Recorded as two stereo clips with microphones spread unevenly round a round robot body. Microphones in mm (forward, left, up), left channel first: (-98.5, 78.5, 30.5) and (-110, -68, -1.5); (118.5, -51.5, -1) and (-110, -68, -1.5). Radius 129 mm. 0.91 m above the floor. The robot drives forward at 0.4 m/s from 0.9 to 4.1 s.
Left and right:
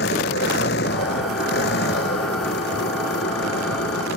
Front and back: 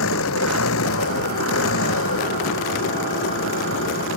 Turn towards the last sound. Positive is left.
turn(degrees=50)